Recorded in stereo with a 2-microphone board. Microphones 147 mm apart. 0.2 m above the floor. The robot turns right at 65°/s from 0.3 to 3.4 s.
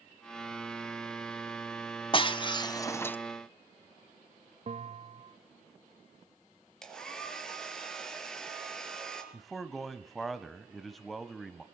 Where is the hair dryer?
5° left (ahead or behind), 4.5 m.